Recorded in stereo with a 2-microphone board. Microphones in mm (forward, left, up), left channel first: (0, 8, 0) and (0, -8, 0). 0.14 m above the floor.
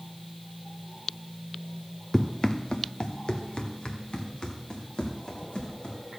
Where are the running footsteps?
35° left (ahead or behind), 0.7 m; by 6.0 s 90° left, 3.5 m.